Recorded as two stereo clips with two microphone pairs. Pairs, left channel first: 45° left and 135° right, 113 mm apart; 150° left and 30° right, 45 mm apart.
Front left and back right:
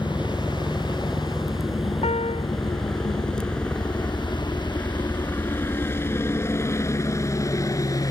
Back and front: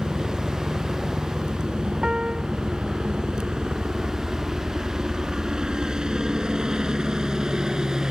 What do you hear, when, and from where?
0.0 s a helicopter: 70° right; by 8.1 s 30° left
2.0 s a piano: 40° left